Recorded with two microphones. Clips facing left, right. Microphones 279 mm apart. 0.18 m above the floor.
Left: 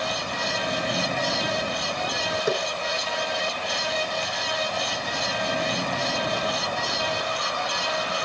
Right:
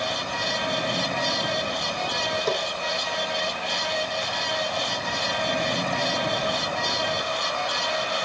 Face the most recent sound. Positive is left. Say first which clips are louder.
# left 2 dB
turn(degrees=10)  # may be behind; listen again after turning